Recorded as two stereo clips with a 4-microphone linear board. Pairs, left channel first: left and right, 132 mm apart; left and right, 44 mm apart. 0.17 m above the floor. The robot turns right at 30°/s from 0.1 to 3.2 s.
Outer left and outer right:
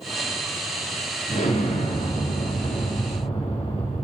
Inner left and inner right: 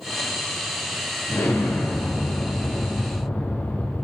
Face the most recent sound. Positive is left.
turn(degrees=130)